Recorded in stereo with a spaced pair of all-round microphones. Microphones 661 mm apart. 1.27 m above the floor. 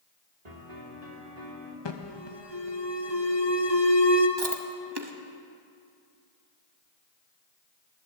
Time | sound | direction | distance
0.5 | a piano | 70° right (ahead or behind) | 2.5 m
1.9 | an alarm | 40° left (ahead or behind) | 1.1 m
4.4 | chewing | 40° right (ahead or behind) | 1.1 m